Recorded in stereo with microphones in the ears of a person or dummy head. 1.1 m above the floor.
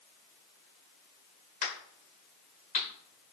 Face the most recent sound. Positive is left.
turn(degrees=45)  # may be behind; listen again after turning